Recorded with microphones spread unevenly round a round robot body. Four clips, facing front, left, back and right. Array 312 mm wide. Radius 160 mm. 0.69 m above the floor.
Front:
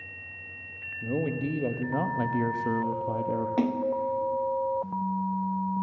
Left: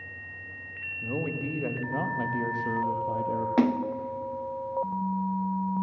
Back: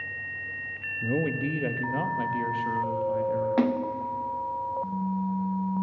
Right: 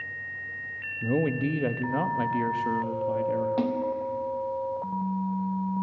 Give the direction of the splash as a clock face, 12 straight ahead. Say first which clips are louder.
Left 2 dB, even; 8 o'clock.